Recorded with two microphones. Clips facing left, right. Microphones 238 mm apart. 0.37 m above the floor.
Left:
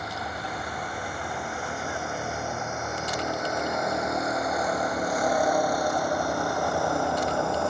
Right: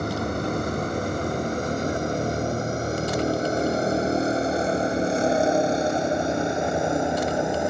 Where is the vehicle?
50° right (ahead or behind); by 7.7 s 20° right (ahead or behind).